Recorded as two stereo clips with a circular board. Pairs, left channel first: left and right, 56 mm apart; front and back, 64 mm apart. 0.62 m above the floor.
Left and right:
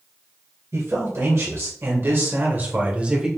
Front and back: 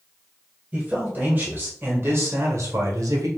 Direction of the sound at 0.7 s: 115° right.